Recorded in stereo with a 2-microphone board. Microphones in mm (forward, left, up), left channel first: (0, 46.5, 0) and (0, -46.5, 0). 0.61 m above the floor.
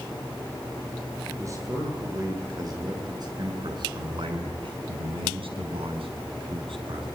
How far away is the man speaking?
About 9 m.